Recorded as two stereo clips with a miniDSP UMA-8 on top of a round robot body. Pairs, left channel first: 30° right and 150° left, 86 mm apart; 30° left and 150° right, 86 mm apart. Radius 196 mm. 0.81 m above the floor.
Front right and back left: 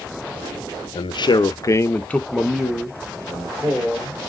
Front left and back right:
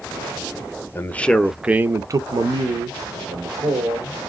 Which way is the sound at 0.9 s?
30° right.